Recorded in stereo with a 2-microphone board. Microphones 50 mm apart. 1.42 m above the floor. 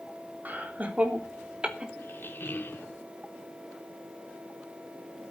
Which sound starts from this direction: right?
Laughter, at 0.5 s.